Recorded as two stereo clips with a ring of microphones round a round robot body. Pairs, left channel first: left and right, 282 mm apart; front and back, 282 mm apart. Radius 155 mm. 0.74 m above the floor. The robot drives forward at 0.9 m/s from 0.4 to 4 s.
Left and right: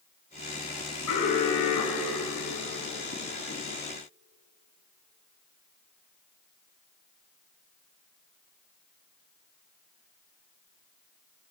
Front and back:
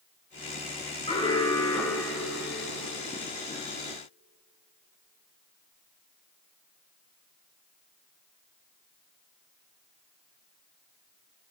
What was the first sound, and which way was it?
An alarm, 70° left.